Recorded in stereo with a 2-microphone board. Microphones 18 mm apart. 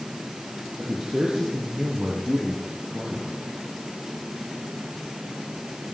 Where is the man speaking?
35° right (ahead or behind), 6.5 m; by 3.3 s 65° right (ahead or behind), 6.5 m.